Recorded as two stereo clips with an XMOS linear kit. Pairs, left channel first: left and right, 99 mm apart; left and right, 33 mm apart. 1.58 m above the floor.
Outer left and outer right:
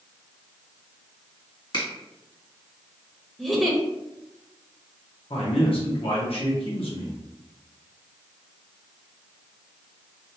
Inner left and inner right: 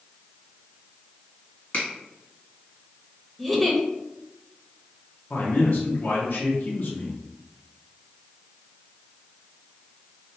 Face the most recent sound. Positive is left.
turn(degrees=70)  # may be behind; listen again after turning